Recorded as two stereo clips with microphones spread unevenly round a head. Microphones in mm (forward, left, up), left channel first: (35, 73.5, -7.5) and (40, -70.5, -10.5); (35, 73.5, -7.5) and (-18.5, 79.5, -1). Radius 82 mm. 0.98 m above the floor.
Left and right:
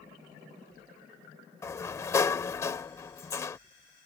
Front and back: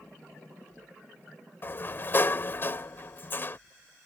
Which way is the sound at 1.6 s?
30° left.